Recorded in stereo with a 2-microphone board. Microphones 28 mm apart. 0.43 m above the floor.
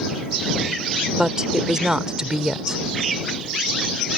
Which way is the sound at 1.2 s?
25° right (ahead or behind).